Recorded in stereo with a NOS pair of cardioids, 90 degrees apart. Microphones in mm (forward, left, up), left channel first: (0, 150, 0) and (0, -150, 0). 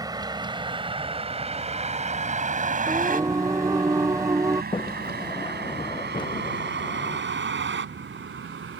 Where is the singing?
10° right.